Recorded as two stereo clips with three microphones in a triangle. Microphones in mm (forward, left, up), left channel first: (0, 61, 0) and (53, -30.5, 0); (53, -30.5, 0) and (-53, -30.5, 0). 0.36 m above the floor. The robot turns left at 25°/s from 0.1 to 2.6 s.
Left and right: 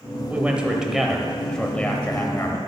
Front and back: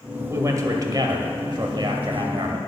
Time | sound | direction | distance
0.3 | a man speaking | 130° right | 1.5 m